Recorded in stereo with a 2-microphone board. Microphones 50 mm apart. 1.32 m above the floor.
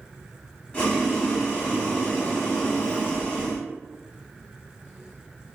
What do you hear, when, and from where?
0.7 s boiling: 30° left (ahead or behind), 1.5 m